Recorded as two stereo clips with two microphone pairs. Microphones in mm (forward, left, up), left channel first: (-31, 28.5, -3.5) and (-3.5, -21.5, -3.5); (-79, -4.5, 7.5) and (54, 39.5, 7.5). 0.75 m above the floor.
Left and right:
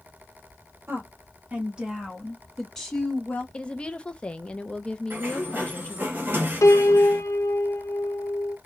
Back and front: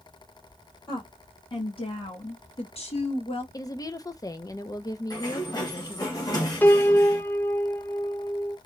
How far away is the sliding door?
About 1.6 m.